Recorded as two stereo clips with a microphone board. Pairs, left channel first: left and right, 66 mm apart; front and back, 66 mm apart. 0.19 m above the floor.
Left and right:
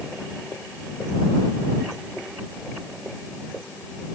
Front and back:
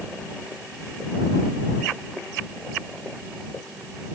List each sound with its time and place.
Only background noise.